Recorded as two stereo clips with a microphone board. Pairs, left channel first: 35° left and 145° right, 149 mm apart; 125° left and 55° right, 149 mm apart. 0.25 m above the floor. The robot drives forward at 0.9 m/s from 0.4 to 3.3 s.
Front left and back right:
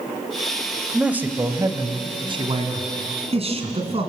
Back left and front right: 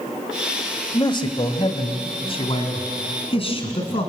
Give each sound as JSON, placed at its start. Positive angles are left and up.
{"t": 0.9, "sound": "a man speaking", "azimuth_deg": 135, "distance_m": 1.1}